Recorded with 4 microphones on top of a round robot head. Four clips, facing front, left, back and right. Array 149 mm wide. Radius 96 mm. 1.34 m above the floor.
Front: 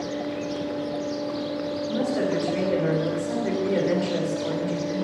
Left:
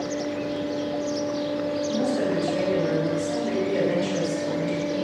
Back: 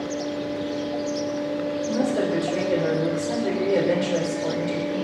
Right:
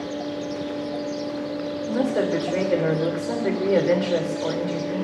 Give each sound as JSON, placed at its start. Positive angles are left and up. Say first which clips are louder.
{"t": 1.9, "sound": "a woman speaking", "louder": "right 4 dB, back 1 dB", "azimuth_deg": -105, "distance_m": 4.0}